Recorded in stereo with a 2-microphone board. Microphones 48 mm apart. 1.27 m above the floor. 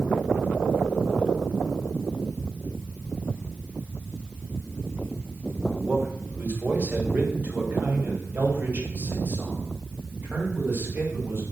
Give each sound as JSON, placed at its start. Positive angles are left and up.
{"t": 5.7, "sound": "a man speaking", "side_deg": -30, "distance_m": 5.0}